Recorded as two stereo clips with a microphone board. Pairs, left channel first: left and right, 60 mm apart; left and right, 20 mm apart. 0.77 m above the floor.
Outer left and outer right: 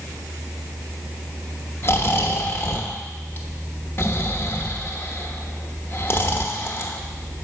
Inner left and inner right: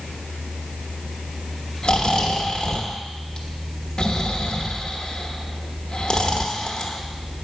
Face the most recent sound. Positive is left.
turn(degrees=40)  # may be behind; listen again after turning